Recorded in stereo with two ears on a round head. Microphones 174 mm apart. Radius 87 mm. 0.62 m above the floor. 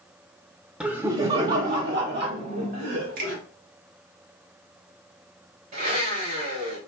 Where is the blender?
50° right (ahead or behind), 2.5 m.